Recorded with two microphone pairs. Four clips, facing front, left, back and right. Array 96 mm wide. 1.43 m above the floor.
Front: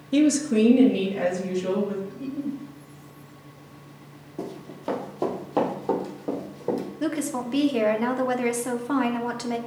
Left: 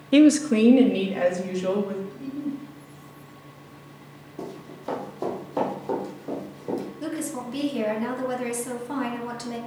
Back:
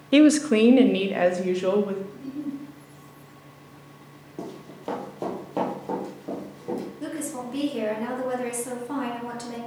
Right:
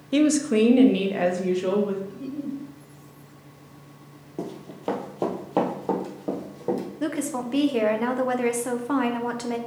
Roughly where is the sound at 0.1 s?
Behind.